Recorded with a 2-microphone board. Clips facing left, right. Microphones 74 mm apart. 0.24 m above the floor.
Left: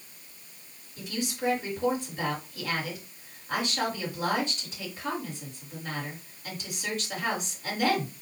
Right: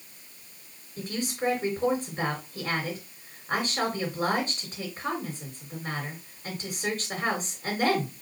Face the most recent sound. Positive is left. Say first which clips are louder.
# right 1 dB
turn(degrees=-40)  # may be behind; listen again after turning